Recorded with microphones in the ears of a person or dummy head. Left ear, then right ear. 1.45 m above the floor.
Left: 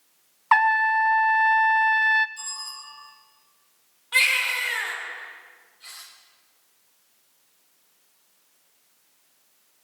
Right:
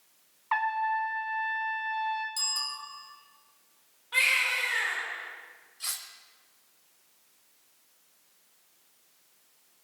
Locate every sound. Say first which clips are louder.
0.5 s a trumpet: left 9 dB; 50° left (ahead or behind), 0.5 m
2.4 s a bicycle bell: right 4 dB; 45° right (ahead or behind), 6.5 m
4.1 s a baby crying: left 4 dB; 25° left (ahead or behind), 4 m
5.8 s cutlery clinking: right 6 dB; 65° right (ahead or behind), 3.5 m